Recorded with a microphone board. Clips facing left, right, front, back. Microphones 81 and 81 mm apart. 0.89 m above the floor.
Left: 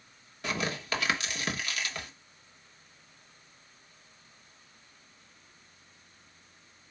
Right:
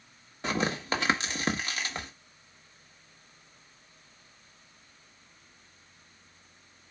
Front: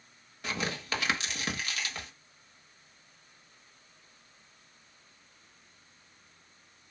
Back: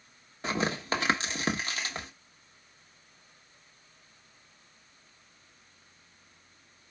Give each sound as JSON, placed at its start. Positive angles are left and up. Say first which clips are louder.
{"t": 0.4, "sound": "tearing paper", "louder": "right 3 dB, back 5 dB", "azimuth_deg": -135, "distance_m": 1.2}